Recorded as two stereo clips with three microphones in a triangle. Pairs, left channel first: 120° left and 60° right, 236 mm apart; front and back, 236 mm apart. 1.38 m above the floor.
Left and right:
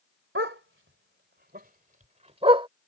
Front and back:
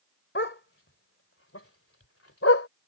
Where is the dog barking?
35° right; by 2.7 s 10° left.